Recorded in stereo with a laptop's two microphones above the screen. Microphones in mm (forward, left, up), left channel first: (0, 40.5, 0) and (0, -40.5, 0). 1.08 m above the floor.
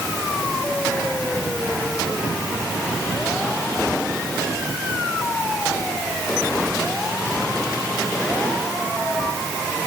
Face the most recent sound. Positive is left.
No sound to turn to.